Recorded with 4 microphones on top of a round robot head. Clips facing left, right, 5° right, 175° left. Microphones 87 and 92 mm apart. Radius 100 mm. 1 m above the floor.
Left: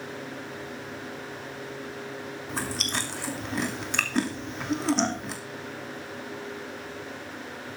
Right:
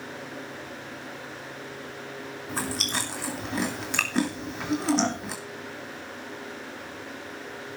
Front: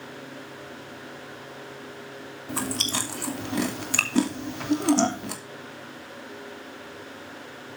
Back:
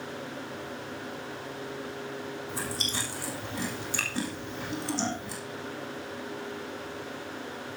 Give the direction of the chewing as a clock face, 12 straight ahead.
12 o'clock.